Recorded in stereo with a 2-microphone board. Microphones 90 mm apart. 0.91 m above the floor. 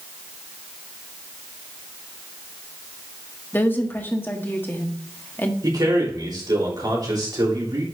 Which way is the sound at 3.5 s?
25° left (ahead or behind).